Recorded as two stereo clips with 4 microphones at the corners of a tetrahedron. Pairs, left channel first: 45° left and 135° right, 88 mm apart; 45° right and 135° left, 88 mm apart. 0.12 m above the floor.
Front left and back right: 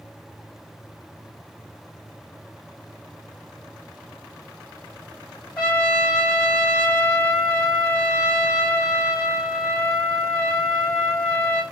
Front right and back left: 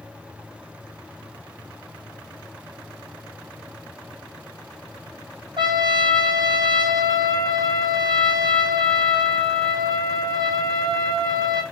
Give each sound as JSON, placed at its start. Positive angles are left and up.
{"t": 5.6, "sound": "a trumpet", "azimuth_deg": 125, "distance_m": 1.6}